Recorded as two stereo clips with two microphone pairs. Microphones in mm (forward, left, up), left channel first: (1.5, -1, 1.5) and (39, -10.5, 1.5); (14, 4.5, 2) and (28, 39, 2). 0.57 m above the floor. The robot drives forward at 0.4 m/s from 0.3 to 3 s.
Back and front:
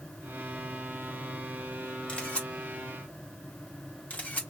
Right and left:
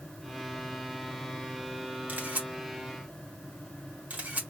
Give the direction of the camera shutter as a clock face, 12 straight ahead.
9 o'clock.